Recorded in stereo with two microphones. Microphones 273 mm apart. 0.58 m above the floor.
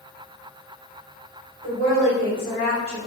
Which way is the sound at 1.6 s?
60° right (ahead or behind).